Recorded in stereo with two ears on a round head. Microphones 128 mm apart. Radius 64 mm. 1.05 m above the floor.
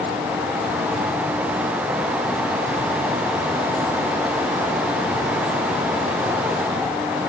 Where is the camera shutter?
I don't hear a camera shutter.